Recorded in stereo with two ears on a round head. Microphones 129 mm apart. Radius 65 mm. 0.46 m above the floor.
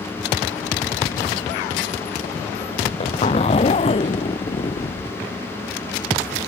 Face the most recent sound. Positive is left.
turn(degrees=40)  # may be behind; listen again after turning